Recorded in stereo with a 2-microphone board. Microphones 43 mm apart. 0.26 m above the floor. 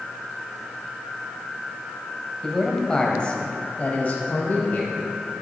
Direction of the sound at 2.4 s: 5° left (ahead or behind).